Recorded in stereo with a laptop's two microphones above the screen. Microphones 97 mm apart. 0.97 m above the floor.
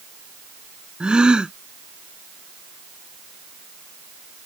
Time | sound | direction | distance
1.0 | a gasp | 10° right (ahead or behind) | ?